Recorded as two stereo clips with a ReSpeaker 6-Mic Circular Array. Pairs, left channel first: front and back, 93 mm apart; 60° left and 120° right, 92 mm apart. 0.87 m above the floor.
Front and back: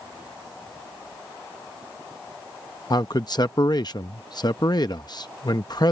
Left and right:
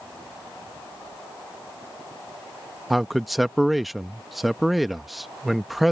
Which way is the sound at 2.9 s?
30° right.